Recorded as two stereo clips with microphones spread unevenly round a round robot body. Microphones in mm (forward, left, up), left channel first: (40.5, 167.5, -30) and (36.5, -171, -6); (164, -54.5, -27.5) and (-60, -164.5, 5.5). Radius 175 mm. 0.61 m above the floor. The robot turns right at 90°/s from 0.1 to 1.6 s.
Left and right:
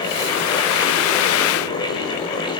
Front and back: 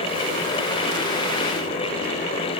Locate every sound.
Only background noise.